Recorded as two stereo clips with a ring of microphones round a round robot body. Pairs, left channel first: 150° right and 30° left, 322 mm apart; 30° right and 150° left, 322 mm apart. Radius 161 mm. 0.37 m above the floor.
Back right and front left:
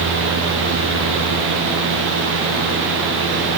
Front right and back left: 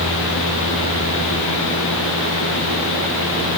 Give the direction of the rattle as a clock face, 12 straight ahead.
No rattle in this recording.